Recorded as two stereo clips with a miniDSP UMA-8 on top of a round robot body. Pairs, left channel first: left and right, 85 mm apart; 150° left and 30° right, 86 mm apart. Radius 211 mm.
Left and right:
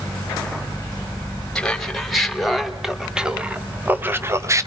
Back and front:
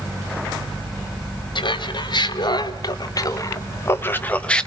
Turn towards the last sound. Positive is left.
turn(degrees=-130)